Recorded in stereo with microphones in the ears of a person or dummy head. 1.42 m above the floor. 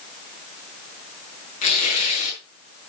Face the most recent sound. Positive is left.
turn(degrees=45)  # may be behind; listen again after turning